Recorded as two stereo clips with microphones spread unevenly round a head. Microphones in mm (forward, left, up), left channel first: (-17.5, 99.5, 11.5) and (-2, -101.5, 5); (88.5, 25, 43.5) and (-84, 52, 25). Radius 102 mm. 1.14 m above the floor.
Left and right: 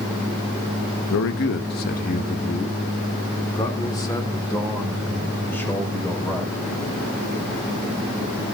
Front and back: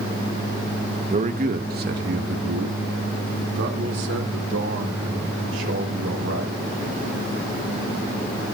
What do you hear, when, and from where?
1.1 s a man speaking: 115° left, 1.0 m; by 6.6 s 175° left, 4.5 m